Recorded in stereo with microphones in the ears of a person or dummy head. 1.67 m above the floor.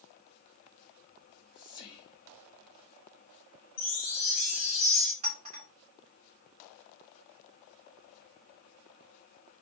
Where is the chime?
40° left (ahead or behind), 2 m.